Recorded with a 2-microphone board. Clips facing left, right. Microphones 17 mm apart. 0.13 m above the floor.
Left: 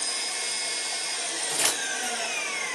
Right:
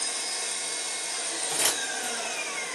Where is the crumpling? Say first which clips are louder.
Left 1 dB; 30° left (ahead or behind), 2.0 m.